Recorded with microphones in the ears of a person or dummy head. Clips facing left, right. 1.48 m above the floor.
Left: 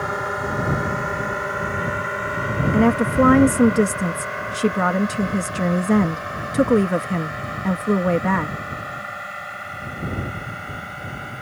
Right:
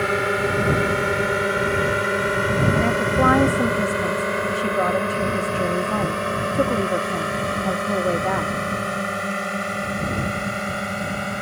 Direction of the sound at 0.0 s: 30° right (ahead or behind).